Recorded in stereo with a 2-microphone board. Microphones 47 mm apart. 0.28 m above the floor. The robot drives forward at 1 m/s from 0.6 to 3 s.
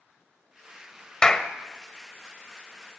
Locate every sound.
1.2 s a clap: 15° left (ahead or behind), 0.7 m